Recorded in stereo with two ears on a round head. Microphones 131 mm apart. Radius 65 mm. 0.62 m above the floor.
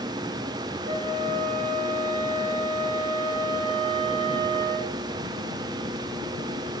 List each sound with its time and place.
0.8 s a flute: 70° right (ahead or behind), 6.5 m